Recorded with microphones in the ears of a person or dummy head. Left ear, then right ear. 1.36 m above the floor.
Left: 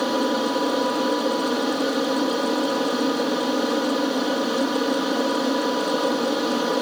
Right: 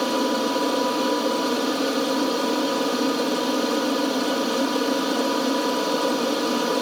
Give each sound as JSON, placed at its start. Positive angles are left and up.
{"t": 0.0, "sound": "an aircraft", "side_deg": -5}